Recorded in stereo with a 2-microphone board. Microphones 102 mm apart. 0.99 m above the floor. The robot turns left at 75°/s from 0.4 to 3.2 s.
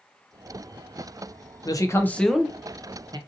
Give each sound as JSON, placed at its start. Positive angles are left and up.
{"t": 1.6, "sound": "a man speaking", "azimuth_deg": 55, "distance_m": 0.5}